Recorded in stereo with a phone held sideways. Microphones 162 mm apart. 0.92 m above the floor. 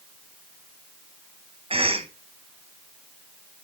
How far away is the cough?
About 0.7 m.